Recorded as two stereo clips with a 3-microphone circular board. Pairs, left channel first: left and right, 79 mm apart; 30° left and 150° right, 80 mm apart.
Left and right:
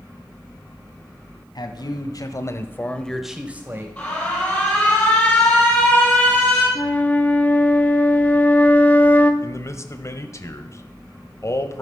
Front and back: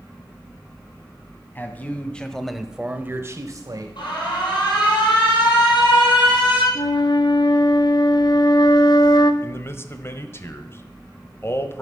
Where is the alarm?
15° left, 6 m.